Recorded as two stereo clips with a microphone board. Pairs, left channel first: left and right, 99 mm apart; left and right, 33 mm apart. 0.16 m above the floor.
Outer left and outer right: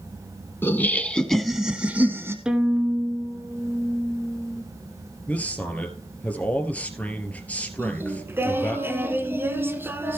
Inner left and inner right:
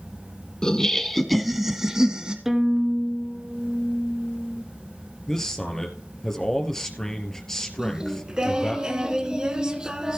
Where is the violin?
10° right (ahead or behind), 1.6 m.